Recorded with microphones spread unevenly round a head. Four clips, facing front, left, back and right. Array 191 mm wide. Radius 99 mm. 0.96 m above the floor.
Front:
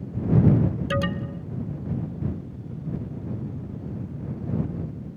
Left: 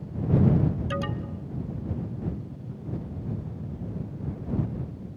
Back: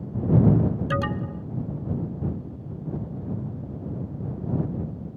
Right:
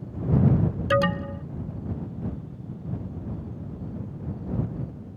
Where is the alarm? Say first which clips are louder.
Right 8 dB, even; 90° right.